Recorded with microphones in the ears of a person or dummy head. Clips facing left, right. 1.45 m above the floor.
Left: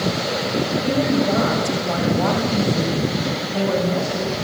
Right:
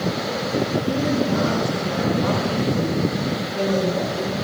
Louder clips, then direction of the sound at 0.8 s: Left 2 dB; 85° left.